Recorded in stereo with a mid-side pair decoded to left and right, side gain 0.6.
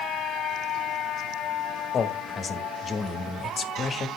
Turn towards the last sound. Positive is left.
turn(degrees=35)